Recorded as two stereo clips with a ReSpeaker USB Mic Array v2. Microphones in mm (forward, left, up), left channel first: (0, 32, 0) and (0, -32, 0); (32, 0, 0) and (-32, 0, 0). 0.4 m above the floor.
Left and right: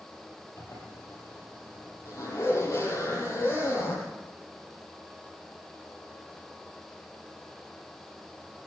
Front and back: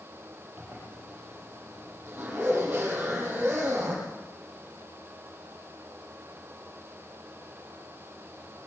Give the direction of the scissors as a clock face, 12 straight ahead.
I don't hear scissors.